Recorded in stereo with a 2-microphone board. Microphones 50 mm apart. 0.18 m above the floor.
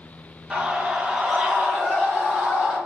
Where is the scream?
5° right (ahead or behind), 2.5 m; by 2.8 s centre (ahead or behind), 5 m.